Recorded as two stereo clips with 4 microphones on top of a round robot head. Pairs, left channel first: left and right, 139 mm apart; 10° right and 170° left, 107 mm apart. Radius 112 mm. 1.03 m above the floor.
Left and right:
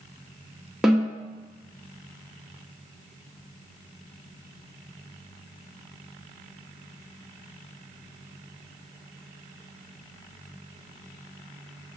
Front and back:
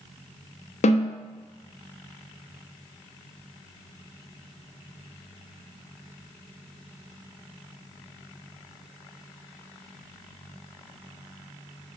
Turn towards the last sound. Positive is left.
turn(degrees=0)